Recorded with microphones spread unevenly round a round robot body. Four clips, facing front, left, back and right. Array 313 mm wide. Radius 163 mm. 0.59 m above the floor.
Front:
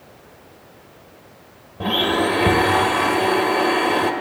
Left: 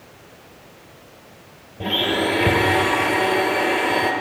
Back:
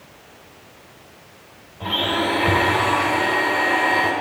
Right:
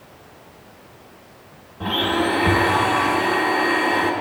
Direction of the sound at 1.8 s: 30° left.